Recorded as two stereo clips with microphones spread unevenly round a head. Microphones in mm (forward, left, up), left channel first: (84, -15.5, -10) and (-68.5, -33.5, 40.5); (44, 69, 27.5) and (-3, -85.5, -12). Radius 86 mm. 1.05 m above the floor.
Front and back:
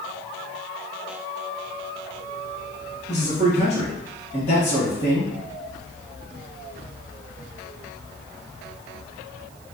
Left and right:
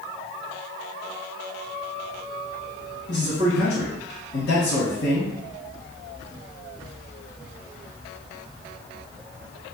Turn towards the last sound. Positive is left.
turn(degrees=50)